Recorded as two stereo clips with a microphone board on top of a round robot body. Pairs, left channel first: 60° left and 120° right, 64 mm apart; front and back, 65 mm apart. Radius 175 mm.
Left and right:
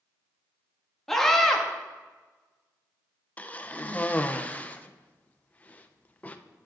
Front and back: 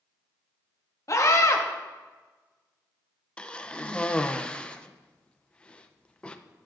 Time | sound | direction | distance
1.1 | a scream | 25° right | 1.5 m
3.4 | a cough | 45° left | 0.7 m